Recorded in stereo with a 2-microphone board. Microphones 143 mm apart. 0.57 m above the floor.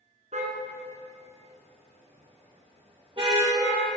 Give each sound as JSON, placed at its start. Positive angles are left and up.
{"t": 0.3, "sound": "a car horn", "side_deg": -55, "distance_m": 2.5}